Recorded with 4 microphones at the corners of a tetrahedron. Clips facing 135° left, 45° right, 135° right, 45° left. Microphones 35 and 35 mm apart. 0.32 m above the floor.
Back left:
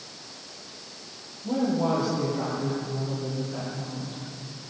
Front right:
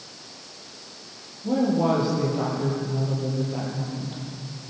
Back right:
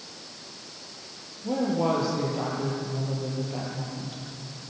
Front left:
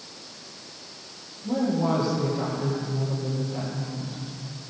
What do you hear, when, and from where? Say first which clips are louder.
1.4 s a woman speaking: front right 3 dB, front left 1 dB; 110° right, 10 m